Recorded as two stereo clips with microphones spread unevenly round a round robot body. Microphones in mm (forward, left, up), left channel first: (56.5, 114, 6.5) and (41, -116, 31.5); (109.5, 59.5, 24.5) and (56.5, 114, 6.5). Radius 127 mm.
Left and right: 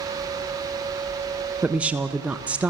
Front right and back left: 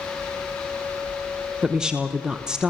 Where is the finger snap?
No finger snap in this recording.